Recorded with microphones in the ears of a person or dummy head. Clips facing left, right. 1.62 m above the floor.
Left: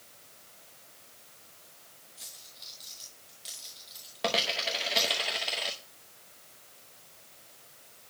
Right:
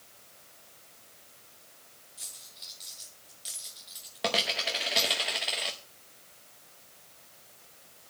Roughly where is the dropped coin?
Centre.